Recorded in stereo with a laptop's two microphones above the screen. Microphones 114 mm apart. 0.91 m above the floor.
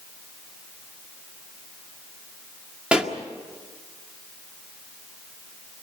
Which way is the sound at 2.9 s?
10° right (ahead or behind).